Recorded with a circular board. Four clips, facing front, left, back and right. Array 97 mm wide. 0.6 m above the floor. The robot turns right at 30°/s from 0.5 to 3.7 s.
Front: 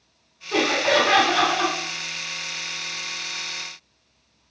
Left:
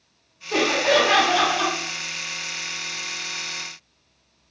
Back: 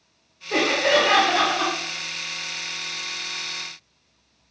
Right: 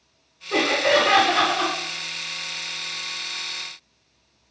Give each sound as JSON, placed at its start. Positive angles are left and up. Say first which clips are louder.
{"t": 0.5, "sound": "laughter", "louder": "even, even", "azimuth_deg": -160, "distance_m": 2.0}